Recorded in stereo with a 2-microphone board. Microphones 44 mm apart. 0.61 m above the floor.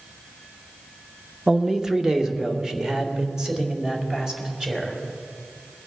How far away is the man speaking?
About 0.7 m.